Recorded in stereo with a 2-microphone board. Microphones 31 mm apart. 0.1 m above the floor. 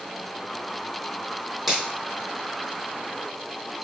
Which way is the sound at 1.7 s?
Centre (ahead or behind).